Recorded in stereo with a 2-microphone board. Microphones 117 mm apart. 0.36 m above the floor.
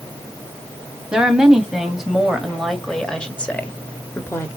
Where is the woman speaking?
5° right (ahead or behind), 2 m; by 4.5 s 25° left (ahead or behind), 1.0 m.